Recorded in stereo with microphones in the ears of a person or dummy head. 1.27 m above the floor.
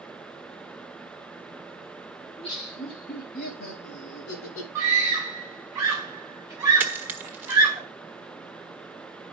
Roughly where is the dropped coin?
Centre.